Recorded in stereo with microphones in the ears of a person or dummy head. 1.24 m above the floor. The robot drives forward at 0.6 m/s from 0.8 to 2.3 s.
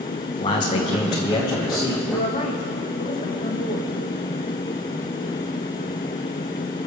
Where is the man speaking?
25° left (ahead or behind), 1.3 m; by 2.0 s 15° left (ahead or behind), 1.9 m.